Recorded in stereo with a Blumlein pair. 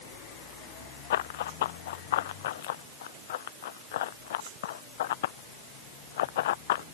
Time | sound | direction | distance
1.1 | running footsteps | 55° left | ?